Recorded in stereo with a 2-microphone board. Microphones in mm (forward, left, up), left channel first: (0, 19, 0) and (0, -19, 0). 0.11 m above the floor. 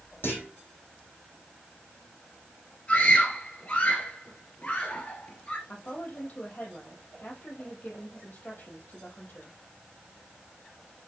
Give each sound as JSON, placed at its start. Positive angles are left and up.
{"t": 0.2, "sound": "a clunk", "side_deg": 65, "distance_m": 4.5}
{"t": 2.9, "sound": "a scream", "side_deg": 35, "distance_m": 1.8}
{"t": 5.7, "sound": "a woman speaking", "side_deg": 45, "distance_m": 4.0}